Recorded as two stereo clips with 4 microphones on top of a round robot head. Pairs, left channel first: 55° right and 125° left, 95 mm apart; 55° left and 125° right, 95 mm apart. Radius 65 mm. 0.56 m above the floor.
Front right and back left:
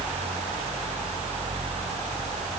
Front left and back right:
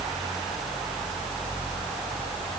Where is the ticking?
I don't hear ticking.